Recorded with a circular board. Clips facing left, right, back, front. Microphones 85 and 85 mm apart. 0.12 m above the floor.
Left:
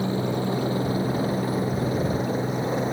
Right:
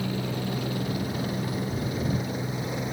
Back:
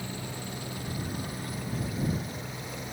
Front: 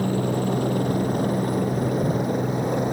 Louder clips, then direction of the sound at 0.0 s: Left 5 dB, front 15 dB; 30° left.